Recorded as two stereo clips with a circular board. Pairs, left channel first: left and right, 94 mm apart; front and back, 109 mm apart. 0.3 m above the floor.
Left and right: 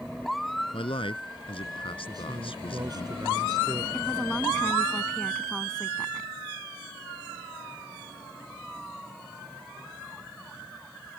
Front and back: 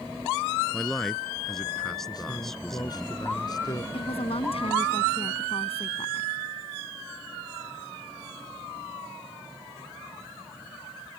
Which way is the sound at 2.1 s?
50° right.